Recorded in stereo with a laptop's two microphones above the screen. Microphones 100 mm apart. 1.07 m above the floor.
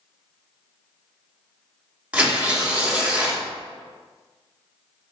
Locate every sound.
2.1 s tearing paper: 15° right (ahead or behind), 1.2 m